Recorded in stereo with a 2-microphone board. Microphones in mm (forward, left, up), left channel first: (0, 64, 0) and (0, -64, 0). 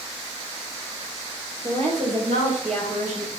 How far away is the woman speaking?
About 5 m.